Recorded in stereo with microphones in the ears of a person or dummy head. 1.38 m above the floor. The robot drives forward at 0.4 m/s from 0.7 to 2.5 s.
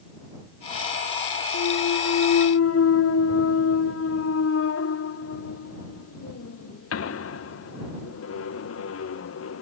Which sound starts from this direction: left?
A clunk, at 1.5 s.